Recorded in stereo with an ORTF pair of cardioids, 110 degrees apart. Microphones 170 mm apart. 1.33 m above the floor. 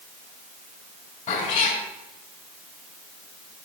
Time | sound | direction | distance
1.3 | a cat meowing | 50° left | 3 m